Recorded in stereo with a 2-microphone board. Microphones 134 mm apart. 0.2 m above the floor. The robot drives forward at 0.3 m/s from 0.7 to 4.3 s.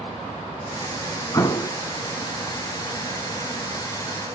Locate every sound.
1.3 s an explosion: 30° left (ahead or behind), 1.0 m; by 1.7 s 25° left (ahead or behind), 1.1 m